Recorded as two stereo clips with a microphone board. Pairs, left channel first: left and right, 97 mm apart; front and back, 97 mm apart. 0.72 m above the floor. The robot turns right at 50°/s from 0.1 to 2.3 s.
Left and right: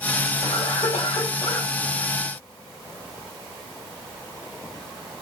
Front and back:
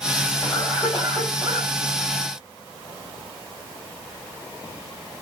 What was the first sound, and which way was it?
A cough, 60° left.